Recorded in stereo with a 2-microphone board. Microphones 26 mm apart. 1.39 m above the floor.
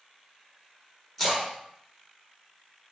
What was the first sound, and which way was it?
A splash, 5° right (ahead or behind).